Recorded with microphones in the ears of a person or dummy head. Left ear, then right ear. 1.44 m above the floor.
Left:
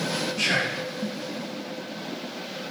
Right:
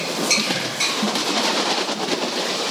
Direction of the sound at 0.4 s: 40° left (ahead or behind).